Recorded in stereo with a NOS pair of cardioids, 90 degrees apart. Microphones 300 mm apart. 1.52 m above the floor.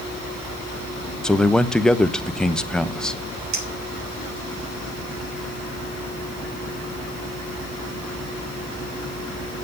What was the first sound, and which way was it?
A man speaking, straight ahead.